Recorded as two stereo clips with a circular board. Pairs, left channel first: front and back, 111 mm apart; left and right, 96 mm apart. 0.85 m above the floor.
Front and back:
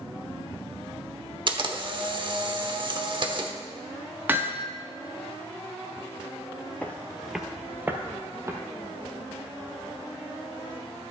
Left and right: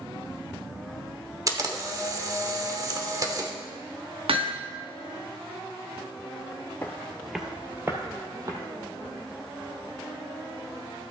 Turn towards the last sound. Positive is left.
turn(degrees=-125)